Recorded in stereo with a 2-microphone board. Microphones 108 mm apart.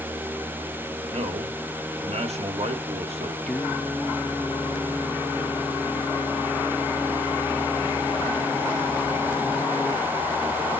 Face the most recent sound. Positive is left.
turn(degrees=15)  # may be behind; listen again after turning